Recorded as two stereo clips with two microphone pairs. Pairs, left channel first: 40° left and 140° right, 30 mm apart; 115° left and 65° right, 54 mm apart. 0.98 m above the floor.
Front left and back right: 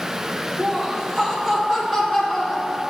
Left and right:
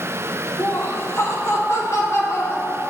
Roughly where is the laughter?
Behind left.